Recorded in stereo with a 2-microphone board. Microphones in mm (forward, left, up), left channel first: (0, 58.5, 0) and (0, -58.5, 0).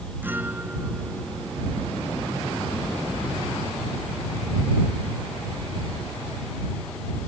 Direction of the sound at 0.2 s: 15° right (ahead or behind).